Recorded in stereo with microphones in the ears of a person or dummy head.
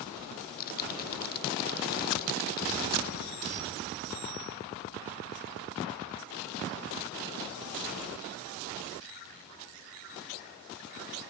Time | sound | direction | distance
0.4 | typing on a keyboard | 50° left (ahead or behind) | 1.0 m